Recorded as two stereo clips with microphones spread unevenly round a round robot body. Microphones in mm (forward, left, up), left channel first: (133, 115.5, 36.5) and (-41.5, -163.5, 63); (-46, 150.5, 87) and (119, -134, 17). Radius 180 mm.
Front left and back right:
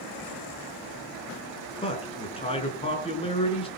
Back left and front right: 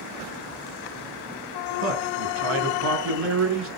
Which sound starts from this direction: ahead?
A man speaking, at 1.8 s.